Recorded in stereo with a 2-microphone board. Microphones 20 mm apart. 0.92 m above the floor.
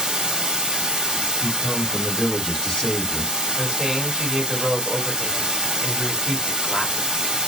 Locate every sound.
0.0 s running water: 45° right (ahead or behind), 0.9 m
1.4 s a man speaking: 45° left (ahead or behind), 1.5 m
3.6 s a man speaking: 25° right (ahead or behind), 1.4 m